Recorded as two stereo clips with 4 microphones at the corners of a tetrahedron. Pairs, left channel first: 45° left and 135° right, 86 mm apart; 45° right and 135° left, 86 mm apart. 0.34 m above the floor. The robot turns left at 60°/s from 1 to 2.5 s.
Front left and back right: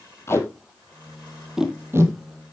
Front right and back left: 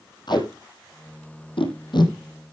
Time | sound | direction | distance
0.3 | tape being pulled | 15° right | 3 m